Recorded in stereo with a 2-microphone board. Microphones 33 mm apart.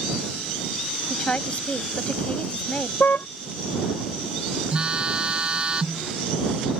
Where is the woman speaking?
40° left (ahead or behind).